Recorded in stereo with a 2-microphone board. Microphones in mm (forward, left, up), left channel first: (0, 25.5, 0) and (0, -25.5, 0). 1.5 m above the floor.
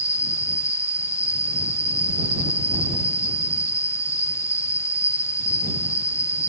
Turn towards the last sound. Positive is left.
turn(degrees=70)  # may be behind; listen again after turning